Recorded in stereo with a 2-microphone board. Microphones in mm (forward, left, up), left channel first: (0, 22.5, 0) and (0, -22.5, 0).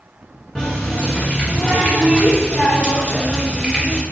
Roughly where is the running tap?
Centre.